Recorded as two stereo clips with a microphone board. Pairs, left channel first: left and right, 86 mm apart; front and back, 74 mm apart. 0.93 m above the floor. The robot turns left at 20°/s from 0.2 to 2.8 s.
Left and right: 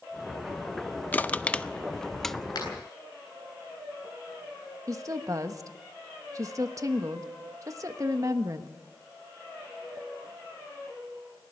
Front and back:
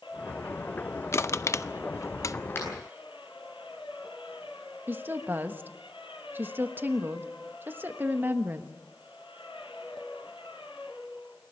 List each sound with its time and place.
1.1 s crushing: 30° left, 0.5 m; by 2.4 s 5° left, 0.5 m
2.5 s a finger snap: 55° left, 9.5 m; by 2.7 s 50° left, 9.5 m
4.9 s a woman speaking: 130° right, 1.3 m